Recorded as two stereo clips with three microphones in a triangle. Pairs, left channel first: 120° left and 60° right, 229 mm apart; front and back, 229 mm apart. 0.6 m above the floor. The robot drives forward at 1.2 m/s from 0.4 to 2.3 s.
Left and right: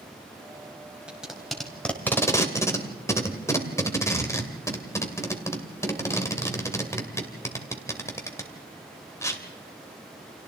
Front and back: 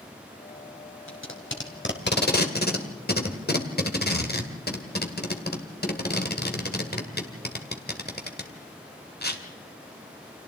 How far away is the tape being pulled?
About 3.5 m.